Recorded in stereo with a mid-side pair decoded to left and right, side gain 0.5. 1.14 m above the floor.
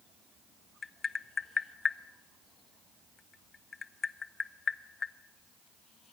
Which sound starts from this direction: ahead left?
Tapping, at 0.8 s.